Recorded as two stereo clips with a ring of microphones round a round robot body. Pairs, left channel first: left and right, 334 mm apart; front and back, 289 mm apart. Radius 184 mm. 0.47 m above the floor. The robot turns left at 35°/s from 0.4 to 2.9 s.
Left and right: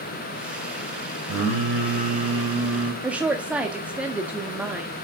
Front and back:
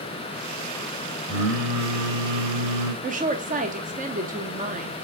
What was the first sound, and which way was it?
Singing, 130° right.